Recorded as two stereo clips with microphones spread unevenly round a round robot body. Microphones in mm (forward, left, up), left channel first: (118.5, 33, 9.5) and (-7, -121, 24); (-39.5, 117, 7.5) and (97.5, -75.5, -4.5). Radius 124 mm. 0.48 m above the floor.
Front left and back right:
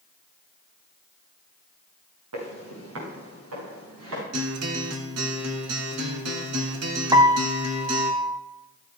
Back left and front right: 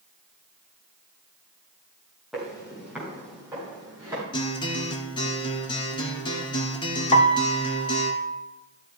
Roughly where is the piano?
Behind.